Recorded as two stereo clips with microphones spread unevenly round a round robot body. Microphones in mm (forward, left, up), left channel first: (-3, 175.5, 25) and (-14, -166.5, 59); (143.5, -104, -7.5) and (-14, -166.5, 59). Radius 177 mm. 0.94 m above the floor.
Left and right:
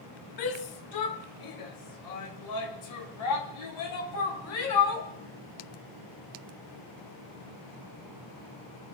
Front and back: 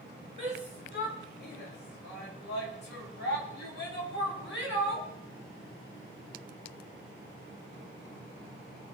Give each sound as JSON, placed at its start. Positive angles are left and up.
{"t": 0.4, "sound": "a shout", "azimuth_deg": 75, "distance_m": 2.5}